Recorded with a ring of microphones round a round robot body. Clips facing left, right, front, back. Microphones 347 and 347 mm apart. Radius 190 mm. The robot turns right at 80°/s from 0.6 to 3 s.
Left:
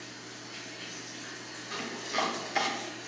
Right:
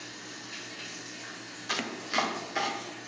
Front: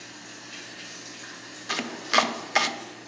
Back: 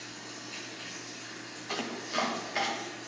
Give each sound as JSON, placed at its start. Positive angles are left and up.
{"t": 0.0, "sound": "running water", "azimuth_deg": -60, "distance_m": 3.5}
{"t": 1.7, "sound": "chopping", "azimuth_deg": -60, "distance_m": 0.6}